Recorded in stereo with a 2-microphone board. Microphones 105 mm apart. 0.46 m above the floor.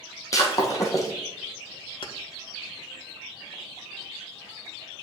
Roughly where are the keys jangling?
Left.